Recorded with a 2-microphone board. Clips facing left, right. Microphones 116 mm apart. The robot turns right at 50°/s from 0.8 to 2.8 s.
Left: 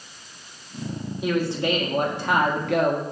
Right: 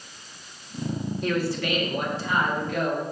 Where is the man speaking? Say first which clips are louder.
Left 4 dB; 5° left, 1.8 m; by 3.0 s 85° left, 1.8 m.